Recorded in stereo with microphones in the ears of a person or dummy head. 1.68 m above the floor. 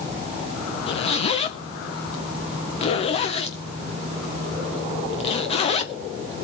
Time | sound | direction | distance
0.9 | a zipper | 35° left (ahead or behind) | 1.0 m